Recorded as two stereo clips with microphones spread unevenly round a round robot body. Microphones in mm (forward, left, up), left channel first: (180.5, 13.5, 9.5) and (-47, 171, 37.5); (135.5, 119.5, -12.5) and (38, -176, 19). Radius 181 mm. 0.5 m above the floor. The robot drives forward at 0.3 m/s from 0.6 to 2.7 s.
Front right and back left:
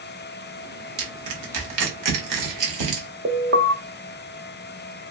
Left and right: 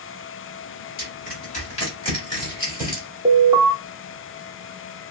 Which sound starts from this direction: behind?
An alarm, at 3.2 s.